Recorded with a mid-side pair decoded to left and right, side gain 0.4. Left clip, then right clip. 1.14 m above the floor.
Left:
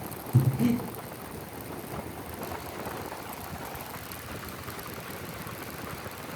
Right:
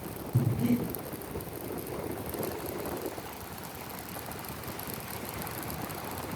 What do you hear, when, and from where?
0.3 s breathing: 45° left, 2.5 m